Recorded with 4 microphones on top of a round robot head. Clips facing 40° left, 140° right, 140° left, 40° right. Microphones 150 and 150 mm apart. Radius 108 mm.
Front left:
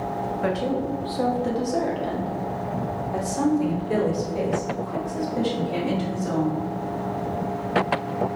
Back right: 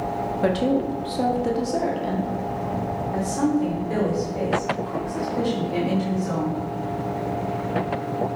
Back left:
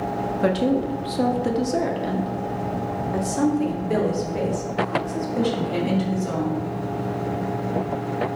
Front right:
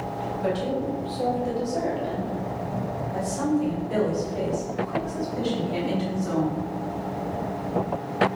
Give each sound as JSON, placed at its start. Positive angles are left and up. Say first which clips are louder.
{"t": 0.4, "sound": "a woman speaking", "louder": "back right 5 dB, back left 6 dB", "azimuth_deg": 165, "distance_m": 1.4}